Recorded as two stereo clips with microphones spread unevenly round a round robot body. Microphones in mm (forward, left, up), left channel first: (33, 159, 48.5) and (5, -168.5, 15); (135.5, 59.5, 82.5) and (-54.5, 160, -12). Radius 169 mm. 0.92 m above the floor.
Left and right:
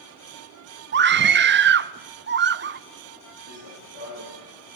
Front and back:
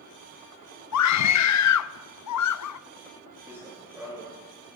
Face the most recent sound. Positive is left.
turn(degrees=70)